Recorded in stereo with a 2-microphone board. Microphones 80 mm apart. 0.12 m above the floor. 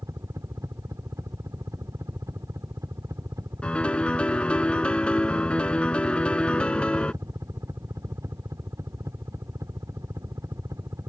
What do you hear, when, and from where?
0.0 s a helicopter: 40° right (ahead or behind)
3.6 s a piano: 15° left (ahead or behind)